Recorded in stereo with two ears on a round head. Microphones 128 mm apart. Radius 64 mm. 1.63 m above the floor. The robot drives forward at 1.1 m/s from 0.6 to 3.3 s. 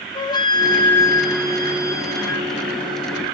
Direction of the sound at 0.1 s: 35° left (ahead or behind).